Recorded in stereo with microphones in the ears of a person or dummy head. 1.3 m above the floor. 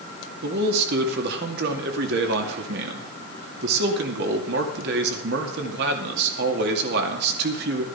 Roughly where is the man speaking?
Right.